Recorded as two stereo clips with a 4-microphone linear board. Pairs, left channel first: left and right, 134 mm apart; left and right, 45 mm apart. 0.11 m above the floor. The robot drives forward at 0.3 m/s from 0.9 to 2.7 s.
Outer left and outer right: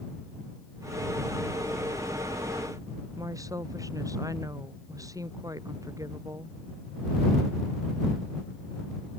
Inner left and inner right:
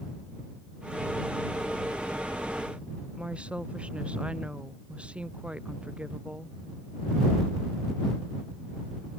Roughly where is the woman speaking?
Right.